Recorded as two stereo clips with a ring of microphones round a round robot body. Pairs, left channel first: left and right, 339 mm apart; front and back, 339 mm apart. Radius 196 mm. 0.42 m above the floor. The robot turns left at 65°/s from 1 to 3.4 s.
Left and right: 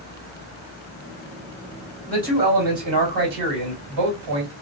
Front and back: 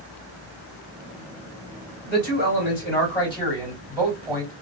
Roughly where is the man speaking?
Ahead.